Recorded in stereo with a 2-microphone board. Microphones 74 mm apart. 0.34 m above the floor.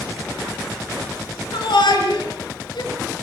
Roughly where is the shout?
Left.